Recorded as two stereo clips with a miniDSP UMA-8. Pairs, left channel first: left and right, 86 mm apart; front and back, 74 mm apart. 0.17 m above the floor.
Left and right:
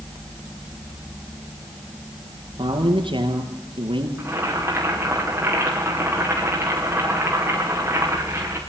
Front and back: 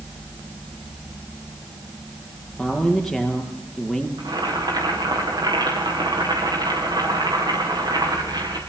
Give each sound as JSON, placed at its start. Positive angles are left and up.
{"t": 2.6, "sound": "a man speaking", "azimuth_deg": -90, "distance_m": 4.5}
{"t": 4.2, "sound": "boiling", "azimuth_deg": -155, "distance_m": 8.0}